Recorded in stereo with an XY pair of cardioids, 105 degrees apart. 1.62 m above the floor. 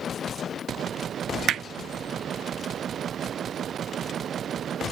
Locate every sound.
1.5 s hammering: 60° right